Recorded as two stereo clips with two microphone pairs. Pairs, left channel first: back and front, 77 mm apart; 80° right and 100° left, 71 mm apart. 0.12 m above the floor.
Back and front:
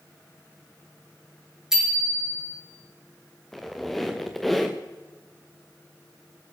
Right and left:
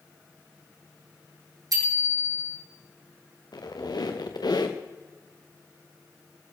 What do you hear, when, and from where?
1.7 s a bicycle bell: 80° left, 4.5 m
3.5 s a squeak: 95° right, 1.8 m